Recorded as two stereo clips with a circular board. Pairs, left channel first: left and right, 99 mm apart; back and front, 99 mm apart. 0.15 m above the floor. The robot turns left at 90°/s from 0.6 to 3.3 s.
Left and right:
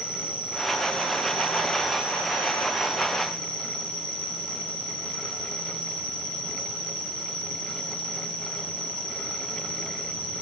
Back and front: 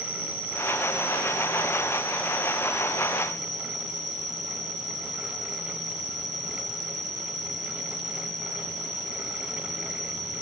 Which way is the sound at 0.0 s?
85° right.